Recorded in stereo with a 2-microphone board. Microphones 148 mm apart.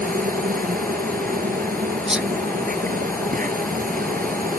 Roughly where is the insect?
Right.